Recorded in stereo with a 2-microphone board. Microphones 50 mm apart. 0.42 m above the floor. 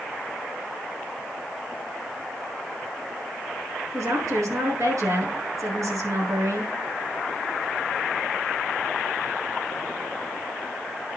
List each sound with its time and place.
3.9 s a woman speaking: 75° right (ahead or behind), 6.5 m